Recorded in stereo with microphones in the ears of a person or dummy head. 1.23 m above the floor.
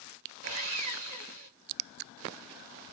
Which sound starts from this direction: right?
Sawing, at 0.4 s.